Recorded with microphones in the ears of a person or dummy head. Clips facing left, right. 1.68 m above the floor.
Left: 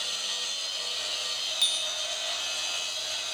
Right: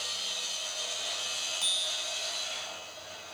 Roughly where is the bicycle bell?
Left.